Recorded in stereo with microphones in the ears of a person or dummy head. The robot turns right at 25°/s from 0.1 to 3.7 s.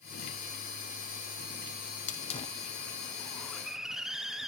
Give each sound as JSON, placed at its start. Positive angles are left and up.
{"t": 2.1, "sound": "a hiss", "azimuth_deg": 140, "distance_m": 1.3}